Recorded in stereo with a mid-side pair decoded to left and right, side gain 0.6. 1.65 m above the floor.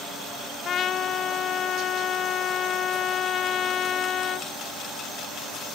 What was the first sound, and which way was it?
A trumpet, 45° left.